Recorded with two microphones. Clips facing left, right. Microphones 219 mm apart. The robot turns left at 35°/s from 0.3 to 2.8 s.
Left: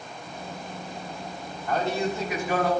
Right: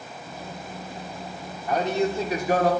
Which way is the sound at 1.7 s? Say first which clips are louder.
Right 3 dB; 10° right.